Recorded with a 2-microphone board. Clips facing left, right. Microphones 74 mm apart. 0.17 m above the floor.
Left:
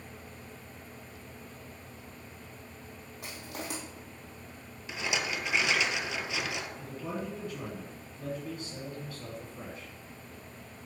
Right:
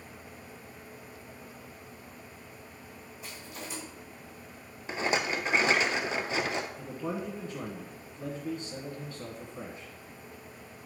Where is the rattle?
40° right (ahead or behind), 0.6 m.